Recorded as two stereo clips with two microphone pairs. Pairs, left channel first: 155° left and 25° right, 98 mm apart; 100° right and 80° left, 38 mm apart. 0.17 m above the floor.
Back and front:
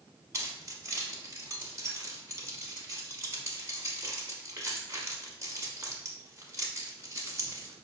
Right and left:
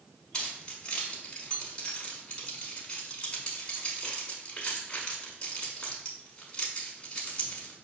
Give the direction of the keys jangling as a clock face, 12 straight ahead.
2 o'clock.